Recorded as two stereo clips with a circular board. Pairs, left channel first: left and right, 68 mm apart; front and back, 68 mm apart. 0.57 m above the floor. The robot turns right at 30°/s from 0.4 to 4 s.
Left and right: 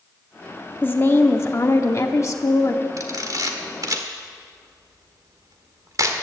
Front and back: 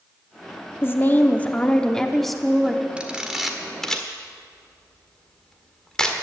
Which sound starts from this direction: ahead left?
A woman speaking, at 0.8 s.